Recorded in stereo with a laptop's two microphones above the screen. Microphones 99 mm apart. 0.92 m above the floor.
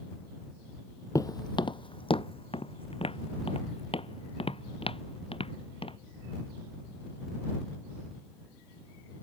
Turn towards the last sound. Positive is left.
turn(degrees=70)  # may be behind; listen again after turning